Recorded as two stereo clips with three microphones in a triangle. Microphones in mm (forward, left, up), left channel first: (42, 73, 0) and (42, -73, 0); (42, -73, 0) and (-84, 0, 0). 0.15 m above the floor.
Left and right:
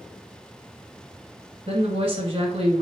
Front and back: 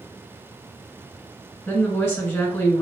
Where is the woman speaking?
95° right, 1.6 m.